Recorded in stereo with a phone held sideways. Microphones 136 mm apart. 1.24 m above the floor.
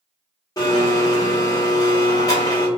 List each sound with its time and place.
0.6 s a blender: 25° left (ahead or behind), 0.9 m